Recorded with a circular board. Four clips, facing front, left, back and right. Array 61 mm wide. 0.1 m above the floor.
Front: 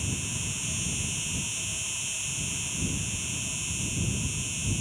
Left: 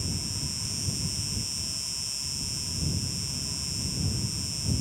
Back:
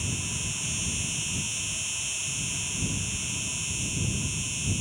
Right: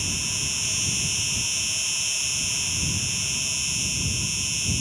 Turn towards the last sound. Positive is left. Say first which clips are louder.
# right 4 dB, even
turn(degrees=-100)